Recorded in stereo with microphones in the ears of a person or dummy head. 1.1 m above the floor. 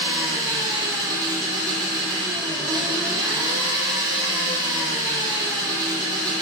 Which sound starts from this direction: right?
An engine running, at 0.0 s.